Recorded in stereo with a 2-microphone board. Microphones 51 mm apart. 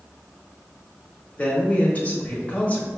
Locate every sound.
1.4 s a man speaking: 30° left (ahead or behind), 1.1 m